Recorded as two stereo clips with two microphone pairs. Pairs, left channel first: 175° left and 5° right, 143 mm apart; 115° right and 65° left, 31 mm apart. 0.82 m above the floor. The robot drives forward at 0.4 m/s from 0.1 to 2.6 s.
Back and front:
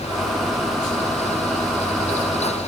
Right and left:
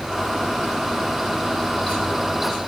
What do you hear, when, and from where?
Only background noise.